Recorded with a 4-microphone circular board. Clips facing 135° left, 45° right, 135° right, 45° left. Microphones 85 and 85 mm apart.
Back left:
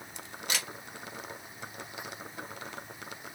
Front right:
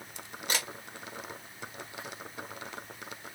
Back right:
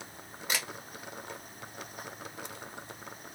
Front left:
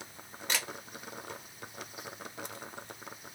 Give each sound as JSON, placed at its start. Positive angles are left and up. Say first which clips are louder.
{"t": 0.5, "sound": "a camera shutter", "louder": "front right 2 dB, back right 1 dB", "azimuth_deg": -55, "distance_m": 0.9}